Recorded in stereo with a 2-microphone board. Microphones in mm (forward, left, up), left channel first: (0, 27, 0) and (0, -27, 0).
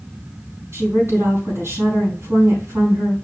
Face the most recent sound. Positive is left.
turn(degrees=-55)  # may be behind; listen again after turning